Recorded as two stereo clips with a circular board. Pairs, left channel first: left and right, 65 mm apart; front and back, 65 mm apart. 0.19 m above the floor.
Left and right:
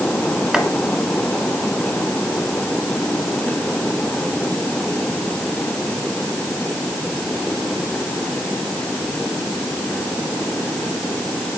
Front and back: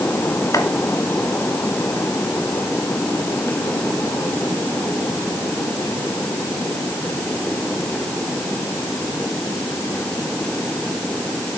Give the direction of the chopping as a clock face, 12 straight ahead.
12 o'clock.